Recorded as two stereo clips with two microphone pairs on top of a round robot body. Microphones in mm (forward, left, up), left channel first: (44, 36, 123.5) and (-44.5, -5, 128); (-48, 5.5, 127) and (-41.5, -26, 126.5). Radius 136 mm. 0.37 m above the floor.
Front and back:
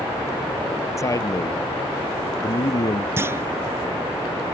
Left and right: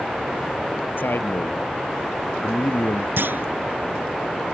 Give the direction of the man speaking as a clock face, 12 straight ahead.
9 o'clock.